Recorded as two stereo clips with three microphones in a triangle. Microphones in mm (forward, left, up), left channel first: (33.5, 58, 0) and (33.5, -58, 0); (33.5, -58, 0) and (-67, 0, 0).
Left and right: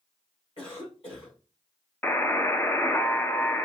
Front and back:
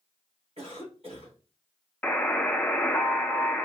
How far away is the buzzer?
About 0.5 m.